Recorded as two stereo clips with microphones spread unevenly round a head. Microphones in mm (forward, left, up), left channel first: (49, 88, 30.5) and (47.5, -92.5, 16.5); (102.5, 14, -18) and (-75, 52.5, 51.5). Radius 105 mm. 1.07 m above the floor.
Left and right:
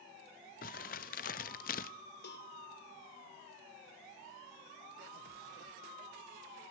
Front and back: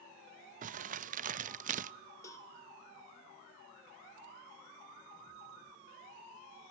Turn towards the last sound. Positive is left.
turn(degrees=60)